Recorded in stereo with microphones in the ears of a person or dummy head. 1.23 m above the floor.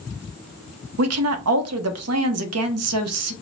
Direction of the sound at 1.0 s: 75° right (ahead or behind).